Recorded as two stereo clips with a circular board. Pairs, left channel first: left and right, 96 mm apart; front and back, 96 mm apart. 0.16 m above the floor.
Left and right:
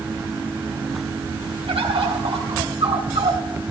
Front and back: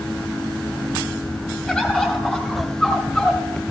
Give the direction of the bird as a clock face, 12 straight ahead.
3 o'clock.